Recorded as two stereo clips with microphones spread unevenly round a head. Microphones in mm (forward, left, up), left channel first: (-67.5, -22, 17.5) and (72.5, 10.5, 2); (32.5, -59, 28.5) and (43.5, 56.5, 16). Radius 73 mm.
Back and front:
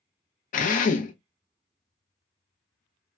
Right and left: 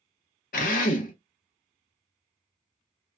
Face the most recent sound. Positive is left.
turn(degrees=-130)